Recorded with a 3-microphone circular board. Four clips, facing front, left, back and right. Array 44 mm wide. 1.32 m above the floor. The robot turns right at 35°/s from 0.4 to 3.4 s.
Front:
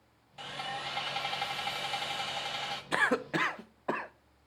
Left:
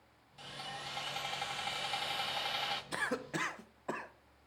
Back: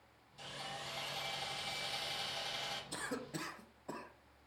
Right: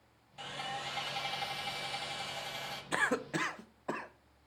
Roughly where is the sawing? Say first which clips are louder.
Right 5 dB, front 8 dB; ahead right.